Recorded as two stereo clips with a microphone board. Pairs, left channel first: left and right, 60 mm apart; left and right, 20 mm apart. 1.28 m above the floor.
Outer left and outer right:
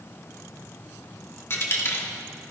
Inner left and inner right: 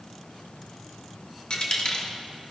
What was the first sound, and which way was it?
A dropped coin, 45° left (ahead or behind).